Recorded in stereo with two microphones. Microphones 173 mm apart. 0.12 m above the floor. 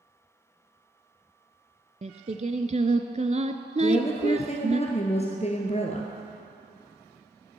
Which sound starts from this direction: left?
A woman speaking, at 3.8 s.